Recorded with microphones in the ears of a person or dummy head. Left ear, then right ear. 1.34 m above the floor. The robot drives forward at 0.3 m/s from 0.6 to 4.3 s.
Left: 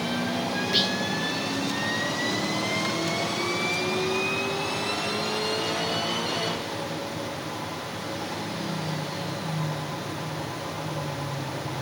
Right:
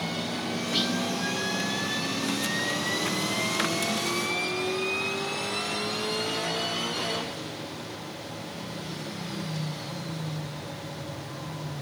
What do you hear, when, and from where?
0.7 s whispering: 15° left (ahead or behind), 0.7 m